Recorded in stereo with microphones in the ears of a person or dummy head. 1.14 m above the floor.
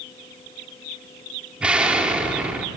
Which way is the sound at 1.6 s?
10° right (ahead or behind).